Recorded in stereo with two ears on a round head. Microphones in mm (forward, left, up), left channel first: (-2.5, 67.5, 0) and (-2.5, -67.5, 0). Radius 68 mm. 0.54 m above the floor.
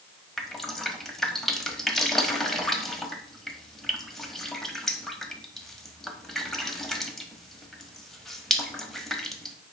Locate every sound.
0.4 s dripping: centre (ahead or behind), 0.9 m